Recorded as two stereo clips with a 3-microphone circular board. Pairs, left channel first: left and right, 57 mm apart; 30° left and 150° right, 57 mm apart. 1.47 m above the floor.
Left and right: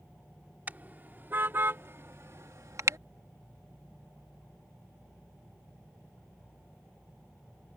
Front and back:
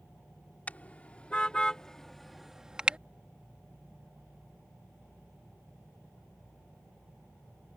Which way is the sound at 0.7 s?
30° right.